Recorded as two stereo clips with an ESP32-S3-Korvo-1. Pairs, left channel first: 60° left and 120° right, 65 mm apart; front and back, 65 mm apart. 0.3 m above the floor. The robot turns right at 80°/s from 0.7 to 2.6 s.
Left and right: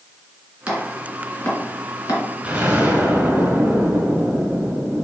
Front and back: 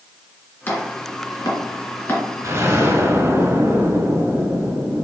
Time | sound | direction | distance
0.7 | chopping | 55° right | 2 m
2.4 | an explosion | 170° left | 1.8 m